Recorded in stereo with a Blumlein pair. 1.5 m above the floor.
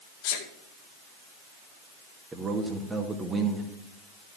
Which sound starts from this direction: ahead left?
A sneeze, at 0.2 s.